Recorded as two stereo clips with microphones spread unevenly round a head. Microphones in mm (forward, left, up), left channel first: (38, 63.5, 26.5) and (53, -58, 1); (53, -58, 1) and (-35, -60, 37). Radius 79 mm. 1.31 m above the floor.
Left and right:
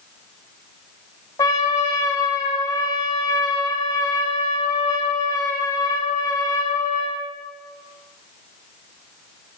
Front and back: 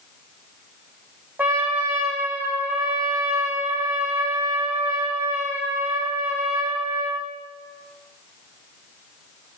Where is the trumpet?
135° left, 0.7 m.